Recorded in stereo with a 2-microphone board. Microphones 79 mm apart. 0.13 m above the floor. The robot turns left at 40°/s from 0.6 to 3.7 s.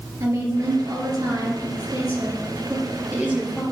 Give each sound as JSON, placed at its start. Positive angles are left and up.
{"t": 0.2, "sound": "a woman speaking", "azimuth_deg": -50, "distance_m": 2.0}